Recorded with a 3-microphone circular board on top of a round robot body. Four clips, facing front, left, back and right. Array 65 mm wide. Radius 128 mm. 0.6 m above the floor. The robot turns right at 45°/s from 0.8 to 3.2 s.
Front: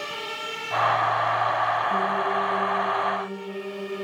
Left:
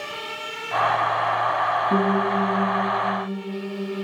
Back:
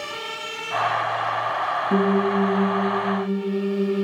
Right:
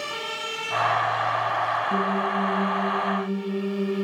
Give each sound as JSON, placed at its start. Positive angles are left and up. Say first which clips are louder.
{"t": 1.9, "sound": "a piano", "louder": "left 3 dB, back 4 dB", "azimuth_deg": 145, "distance_m": 3.0}